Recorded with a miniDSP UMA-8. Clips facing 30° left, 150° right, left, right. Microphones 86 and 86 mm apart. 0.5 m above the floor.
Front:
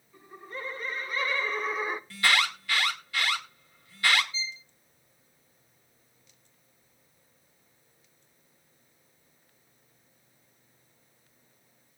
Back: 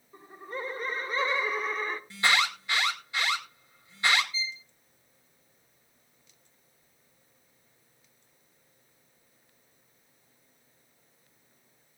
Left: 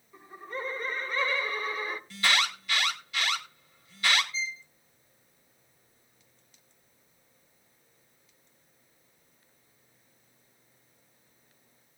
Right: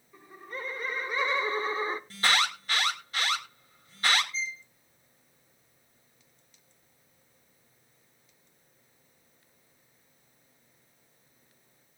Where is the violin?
Straight ahead, 0.6 m.